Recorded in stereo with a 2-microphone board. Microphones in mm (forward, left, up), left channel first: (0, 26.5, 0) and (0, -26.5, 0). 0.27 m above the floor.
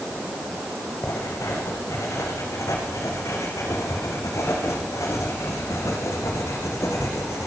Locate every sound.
1.0 s writing: 80° left, 7.5 m